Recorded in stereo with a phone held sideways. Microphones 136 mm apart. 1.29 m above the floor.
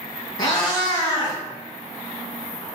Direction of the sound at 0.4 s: 35° left (ahead or behind).